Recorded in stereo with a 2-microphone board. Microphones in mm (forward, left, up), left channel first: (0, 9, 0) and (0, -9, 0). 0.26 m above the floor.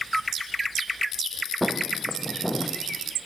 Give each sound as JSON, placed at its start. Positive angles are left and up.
{"t": 1.6, "sound": "footsteps", "side_deg": -10, "distance_m": 2.5}